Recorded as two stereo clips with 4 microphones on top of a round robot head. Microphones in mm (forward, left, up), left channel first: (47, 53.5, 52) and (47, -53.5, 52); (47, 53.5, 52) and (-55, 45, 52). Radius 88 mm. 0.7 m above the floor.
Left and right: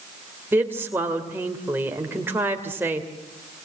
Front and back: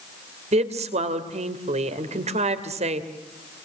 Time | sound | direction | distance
0.5 | a woman speaking | 165° right | 2.5 m